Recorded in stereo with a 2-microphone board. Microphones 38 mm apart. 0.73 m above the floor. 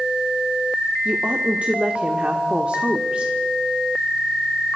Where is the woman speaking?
40° right (ahead or behind), 1.5 m.